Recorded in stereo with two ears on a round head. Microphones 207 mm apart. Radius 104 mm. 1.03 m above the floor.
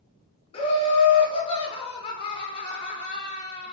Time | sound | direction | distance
0.5 | laughter | 25° left (ahead or behind) | 0.5 m